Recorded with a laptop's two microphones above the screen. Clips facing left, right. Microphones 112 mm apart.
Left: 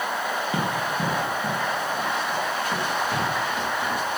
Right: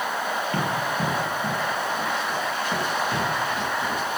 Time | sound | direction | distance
0.5 | running footsteps | 10° left (ahead or behind) | 2 m